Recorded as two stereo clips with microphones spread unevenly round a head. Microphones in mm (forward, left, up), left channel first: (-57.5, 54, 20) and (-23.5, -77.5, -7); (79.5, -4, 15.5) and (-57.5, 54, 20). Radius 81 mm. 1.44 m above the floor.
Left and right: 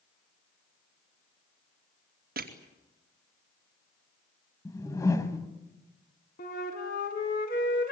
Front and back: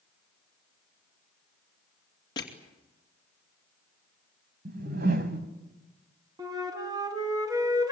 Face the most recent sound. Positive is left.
turn(degrees=95)